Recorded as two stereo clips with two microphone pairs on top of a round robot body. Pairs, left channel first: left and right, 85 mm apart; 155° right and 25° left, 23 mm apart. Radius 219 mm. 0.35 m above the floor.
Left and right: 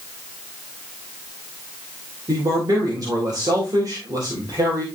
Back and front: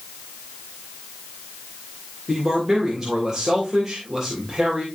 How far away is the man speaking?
About 3 m.